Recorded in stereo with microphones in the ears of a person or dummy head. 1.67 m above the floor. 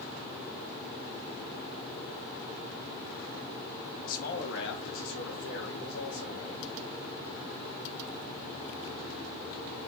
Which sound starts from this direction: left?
A man speaking, at 4.0 s.